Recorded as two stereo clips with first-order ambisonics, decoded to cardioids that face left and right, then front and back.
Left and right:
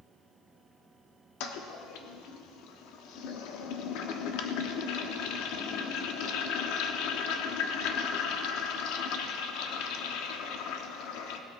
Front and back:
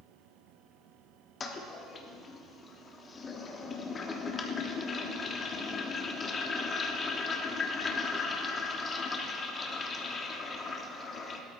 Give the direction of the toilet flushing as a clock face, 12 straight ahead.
10 o'clock.